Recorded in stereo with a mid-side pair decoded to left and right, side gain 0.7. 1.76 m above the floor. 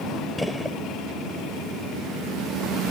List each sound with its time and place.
0.4 s a gunshot: straight ahead